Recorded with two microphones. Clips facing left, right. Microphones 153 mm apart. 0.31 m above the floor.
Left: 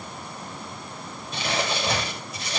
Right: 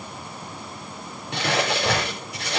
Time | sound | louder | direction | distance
1.3 | crumpling | right 4 dB | 70° right (ahead or behind) | 5 m